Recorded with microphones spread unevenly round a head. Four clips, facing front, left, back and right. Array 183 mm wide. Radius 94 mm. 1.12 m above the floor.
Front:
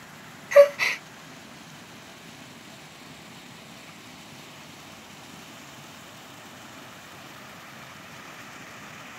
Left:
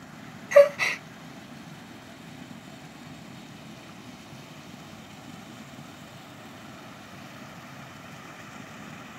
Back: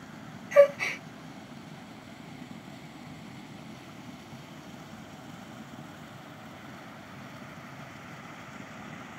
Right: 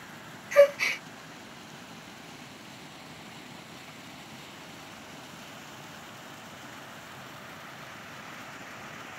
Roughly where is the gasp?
Ahead left.